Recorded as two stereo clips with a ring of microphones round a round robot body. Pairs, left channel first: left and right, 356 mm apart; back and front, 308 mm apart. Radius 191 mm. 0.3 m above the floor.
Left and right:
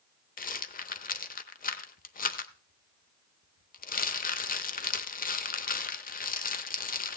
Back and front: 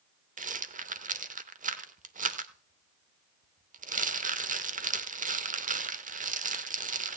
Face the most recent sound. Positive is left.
turn(degrees=45)